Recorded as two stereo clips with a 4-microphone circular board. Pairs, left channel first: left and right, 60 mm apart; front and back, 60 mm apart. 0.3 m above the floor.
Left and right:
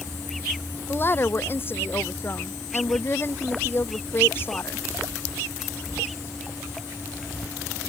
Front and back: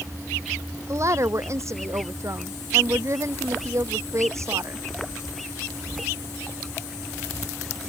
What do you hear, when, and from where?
0.9 s a woman speaking: 140° left